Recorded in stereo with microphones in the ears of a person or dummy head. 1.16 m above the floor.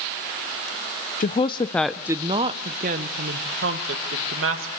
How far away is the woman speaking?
About 0.7 m.